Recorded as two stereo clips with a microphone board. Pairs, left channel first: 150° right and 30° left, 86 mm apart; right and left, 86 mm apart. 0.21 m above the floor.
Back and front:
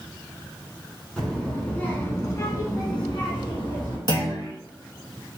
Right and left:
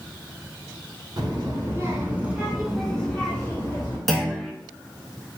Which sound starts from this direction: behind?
A clunk, at 4.1 s.